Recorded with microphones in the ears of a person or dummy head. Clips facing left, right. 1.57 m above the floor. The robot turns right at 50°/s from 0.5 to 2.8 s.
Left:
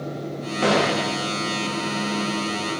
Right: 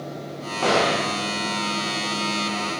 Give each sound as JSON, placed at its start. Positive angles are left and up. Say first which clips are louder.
{"t": 0.6, "sound": "a door slam", "louder": "left 1 dB", "side_deg": 15, "distance_m": 0.7}